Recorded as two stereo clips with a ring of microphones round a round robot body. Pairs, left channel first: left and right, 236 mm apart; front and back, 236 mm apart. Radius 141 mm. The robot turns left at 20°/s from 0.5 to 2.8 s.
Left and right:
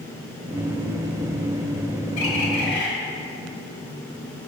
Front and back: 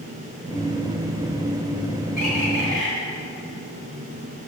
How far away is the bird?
About 1.6 m.